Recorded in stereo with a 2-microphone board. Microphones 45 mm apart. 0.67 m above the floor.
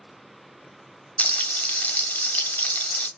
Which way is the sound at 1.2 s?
35° left (ahead or behind).